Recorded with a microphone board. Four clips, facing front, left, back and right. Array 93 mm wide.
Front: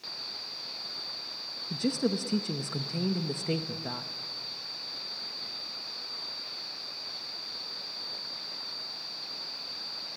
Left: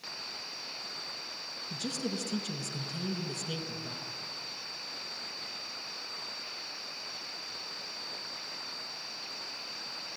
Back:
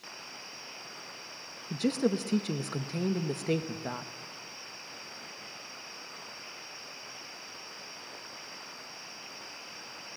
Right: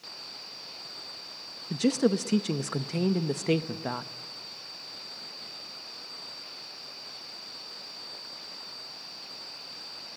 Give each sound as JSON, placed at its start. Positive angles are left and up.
{"t": 1.7, "sound": "a woman speaking", "azimuth_deg": -95, "distance_m": 1.1}